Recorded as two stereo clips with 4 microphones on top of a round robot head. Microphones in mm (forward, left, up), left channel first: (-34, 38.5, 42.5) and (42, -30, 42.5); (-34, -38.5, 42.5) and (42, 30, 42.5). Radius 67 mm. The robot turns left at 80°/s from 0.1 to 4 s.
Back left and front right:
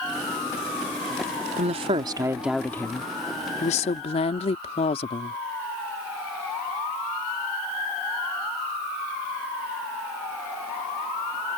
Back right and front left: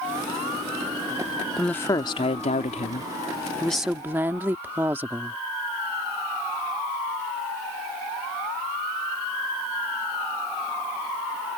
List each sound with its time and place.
1.6 s a woman speaking: 50° right; by 5.4 s 115° left